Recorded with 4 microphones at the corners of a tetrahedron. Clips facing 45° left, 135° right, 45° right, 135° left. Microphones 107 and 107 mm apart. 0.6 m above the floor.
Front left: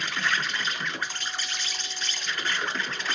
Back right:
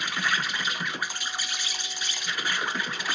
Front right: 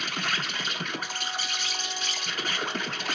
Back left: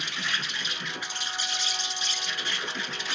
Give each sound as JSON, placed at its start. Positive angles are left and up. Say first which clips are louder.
{"t": 0.0, "sound": "an insect", "louder": "even, front right 3 dB", "azimuth_deg": -60, "distance_m": 0.8}